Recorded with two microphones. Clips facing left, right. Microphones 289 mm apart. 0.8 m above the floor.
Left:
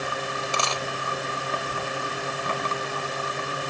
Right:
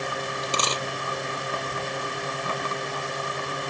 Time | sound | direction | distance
0.4 | a dropped coin | 40° right (ahead or behind) | ?